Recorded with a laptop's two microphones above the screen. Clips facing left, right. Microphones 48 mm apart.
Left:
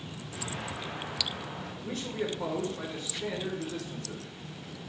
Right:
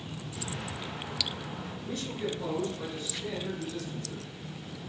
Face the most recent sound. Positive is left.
turn(degrees=75)  # may be behind; listen again after turning